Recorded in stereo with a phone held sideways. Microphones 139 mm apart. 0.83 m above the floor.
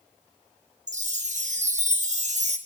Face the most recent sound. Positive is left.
turn(degrees=-60)  # may be behind; listen again after turning